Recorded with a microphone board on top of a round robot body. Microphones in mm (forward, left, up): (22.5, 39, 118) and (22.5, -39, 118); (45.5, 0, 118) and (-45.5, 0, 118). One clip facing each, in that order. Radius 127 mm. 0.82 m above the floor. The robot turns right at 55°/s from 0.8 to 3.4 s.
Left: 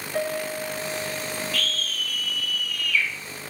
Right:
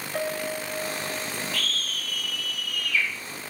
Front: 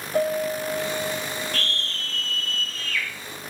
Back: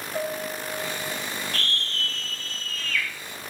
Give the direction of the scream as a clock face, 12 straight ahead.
5 o'clock.